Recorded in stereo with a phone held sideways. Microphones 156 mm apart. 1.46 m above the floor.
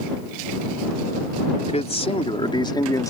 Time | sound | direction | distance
1.7 | a man speaking | 45° left (ahead or behind) | ?